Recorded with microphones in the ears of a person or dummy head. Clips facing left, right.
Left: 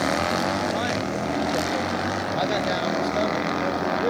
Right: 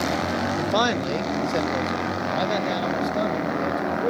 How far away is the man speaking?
About 0.5 m.